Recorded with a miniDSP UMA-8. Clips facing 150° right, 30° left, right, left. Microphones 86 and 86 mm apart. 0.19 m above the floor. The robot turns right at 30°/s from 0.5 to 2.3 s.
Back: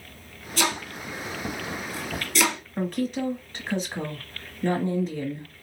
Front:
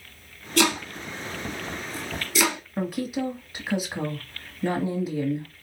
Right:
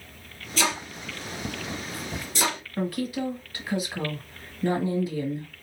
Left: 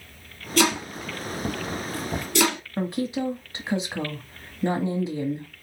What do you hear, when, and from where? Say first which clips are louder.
0.6 s chopping: front 4 dB, left 5 dB; 60° left, 1.7 m; by 2.6 s 115° left, 1.7 m
2.8 s a woman speaking: back 1 dB, left 2 dB; 100° left, 1.1 m